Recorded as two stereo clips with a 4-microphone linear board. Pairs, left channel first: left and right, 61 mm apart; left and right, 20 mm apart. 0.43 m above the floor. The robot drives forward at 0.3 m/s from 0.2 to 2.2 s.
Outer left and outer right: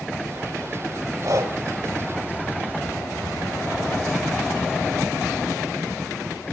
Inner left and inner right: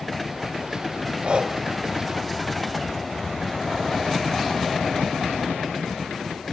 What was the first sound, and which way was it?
Breathing, 65° right (ahead or behind).